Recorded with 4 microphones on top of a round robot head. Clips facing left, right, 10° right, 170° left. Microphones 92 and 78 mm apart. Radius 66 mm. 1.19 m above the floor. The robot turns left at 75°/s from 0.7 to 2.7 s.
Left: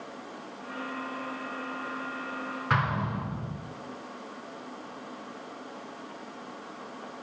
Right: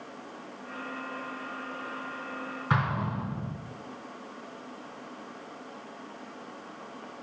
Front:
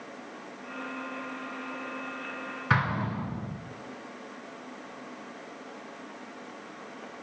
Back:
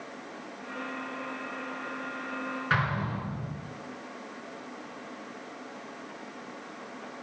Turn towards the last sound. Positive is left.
turn(degrees=-15)